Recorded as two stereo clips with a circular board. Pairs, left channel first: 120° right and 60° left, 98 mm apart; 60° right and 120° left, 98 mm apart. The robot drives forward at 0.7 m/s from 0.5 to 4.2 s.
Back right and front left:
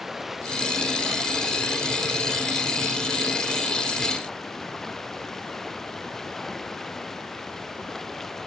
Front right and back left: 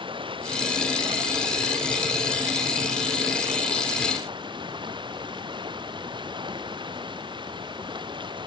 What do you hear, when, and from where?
0.0 s running water: 150° left; by 8.5 s 155° left